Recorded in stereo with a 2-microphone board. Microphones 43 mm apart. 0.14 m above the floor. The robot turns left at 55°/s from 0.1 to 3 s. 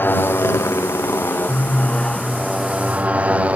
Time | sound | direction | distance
0.0 | a motorcycle | 130° left | ?